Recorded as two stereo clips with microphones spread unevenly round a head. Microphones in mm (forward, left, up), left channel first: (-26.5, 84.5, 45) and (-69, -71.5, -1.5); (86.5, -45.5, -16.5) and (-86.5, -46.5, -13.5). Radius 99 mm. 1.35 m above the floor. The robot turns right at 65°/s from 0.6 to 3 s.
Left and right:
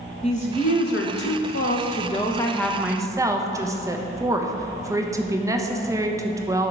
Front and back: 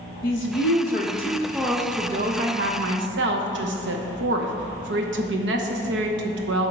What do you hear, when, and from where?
0.2 s a woman speaking: 25° left, 0.9 m; by 6.7 s straight behind, 0.9 m